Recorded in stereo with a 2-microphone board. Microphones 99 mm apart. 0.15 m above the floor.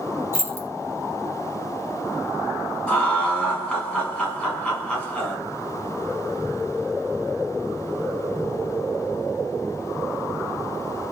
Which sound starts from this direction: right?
Keys jangling, at 0.3 s.